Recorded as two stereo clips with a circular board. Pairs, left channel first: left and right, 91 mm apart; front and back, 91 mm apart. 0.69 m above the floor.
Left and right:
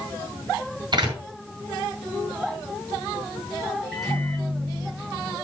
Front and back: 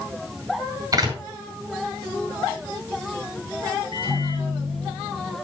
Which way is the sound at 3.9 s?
175° right.